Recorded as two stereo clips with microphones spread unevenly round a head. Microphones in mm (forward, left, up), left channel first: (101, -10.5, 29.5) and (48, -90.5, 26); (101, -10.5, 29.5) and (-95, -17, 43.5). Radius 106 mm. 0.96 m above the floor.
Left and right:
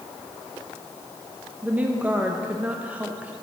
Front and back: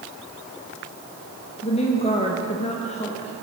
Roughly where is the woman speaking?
Ahead right.